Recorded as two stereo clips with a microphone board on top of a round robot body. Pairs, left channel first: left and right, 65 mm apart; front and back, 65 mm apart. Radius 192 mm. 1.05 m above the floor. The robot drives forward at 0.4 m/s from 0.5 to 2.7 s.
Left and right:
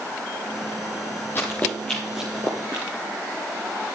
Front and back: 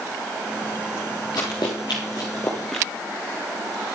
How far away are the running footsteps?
About 1.5 m.